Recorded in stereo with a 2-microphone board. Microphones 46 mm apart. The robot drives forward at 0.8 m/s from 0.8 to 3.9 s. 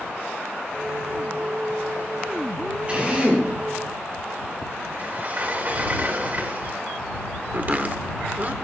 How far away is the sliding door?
About 1.7 m.